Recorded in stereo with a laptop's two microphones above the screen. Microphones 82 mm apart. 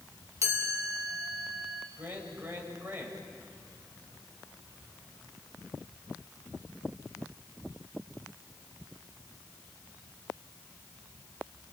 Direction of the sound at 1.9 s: 25° right (ahead or behind).